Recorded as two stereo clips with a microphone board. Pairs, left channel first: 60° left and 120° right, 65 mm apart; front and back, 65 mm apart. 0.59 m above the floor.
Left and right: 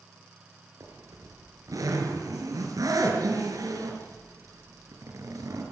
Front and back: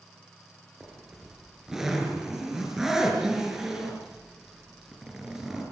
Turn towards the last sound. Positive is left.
turn(degrees=-100)